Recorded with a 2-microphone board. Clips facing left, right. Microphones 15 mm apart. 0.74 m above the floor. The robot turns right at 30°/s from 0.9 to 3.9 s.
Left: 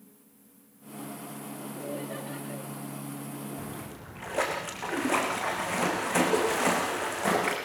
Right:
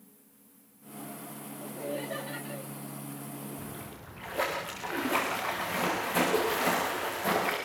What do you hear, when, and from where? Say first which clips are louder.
1.6 s laughter: right 1 dB; 35° right, 1.7 m; by 2.6 s 5° right, 1.7 m
3.6 s a splash: left 3 dB; 60° left (ahead or behind), 9.5 m; by 7.6 s 50° left (ahead or behind), 9.5 m